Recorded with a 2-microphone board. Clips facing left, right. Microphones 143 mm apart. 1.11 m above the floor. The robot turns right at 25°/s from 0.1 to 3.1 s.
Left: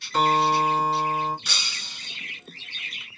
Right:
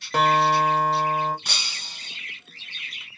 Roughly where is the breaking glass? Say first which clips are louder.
Even; right.